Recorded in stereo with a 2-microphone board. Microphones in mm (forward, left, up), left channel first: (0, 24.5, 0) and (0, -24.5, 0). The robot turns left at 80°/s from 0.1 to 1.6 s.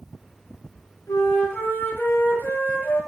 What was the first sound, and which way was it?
A flute, 85° left.